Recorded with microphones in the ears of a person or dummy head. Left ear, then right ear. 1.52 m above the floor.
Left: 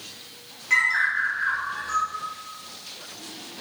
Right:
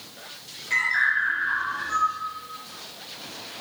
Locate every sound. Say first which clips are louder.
0.7 s a bird: left 1 dB; 35° left (ahead or behind), 0.9 m